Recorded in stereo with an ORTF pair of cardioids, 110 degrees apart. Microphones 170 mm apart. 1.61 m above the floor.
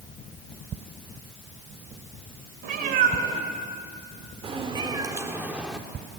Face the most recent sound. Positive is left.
turn(degrees=10)